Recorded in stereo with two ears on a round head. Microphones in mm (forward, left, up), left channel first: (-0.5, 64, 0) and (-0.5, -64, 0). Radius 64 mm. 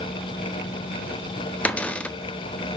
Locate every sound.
1.6 s a cupboard door: 10° left (ahead or behind), 0.9 m